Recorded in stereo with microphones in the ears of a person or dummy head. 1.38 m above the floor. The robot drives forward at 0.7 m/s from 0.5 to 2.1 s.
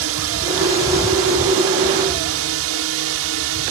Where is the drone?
70° right (ahead or behind).